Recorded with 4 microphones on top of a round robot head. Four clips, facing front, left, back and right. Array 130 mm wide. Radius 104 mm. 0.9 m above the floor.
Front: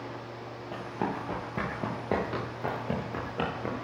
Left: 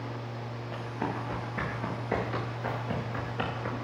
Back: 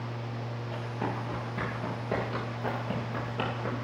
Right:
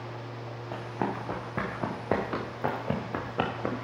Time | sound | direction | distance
0.7 | running footsteps | 60° right | 5 m